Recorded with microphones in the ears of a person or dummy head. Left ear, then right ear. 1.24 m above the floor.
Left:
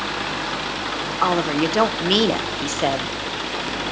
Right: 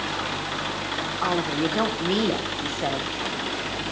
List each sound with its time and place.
1.2 s a woman speaking: 65° left (ahead or behind), 0.8 m